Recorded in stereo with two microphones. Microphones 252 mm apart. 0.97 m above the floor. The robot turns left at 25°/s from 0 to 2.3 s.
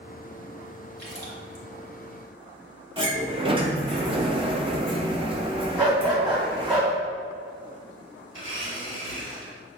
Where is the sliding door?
20° right (ahead or behind), 0.6 m.